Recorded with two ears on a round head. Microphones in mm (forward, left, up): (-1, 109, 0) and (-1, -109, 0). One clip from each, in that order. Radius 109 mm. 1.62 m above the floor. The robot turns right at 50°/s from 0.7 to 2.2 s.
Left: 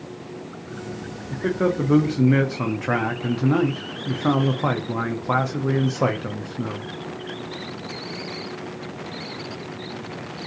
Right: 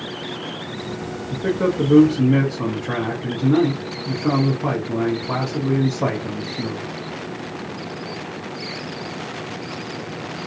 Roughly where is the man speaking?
Ahead.